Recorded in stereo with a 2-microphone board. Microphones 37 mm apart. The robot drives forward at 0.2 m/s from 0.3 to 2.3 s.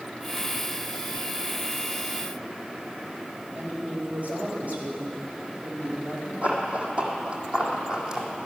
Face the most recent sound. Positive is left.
turn(degrees=-15)  # may be behind; listen again after turning